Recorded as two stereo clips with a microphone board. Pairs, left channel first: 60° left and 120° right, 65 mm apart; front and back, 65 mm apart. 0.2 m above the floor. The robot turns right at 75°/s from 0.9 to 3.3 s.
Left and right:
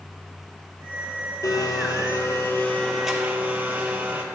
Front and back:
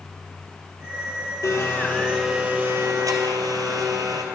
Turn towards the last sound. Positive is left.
turn(degrees=170)